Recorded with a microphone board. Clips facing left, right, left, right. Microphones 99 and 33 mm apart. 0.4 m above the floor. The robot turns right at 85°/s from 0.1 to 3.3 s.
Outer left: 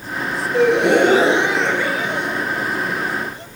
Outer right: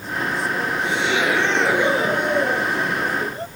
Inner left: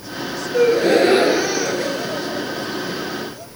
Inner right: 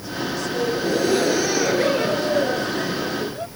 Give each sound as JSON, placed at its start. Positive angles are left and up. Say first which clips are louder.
{"t": 0.5, "sound": "a gasp", "louder": "outer left 10 dB, inner left 9 dB", "azimuth_deg": 90}